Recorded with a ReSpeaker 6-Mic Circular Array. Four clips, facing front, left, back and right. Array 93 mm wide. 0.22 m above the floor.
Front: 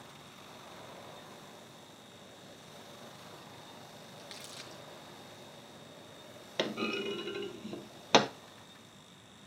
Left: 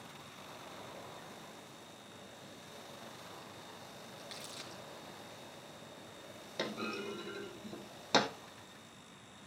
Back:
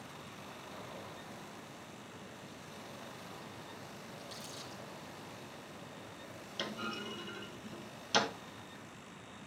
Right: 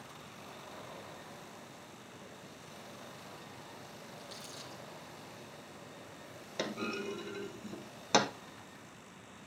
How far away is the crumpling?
About 3.5 m.